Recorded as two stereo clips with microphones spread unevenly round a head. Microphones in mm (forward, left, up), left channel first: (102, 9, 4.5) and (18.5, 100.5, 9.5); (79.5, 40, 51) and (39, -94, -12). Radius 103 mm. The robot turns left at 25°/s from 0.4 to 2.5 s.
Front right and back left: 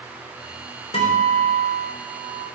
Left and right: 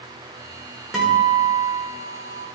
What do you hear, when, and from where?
0.9 s a guitar: 10° right, 3.5 m; by 2.5 s 50° right, 3.5 m